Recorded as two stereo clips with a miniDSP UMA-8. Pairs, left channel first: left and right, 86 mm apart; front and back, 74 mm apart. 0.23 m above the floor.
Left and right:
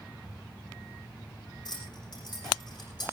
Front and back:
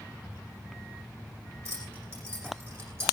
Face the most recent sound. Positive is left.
turn(degrees=125)